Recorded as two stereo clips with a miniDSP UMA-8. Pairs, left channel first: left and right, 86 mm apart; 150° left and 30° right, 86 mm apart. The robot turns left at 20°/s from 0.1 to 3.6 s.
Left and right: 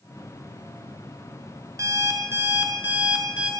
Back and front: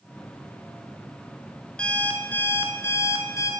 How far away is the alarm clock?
About 0.7 m.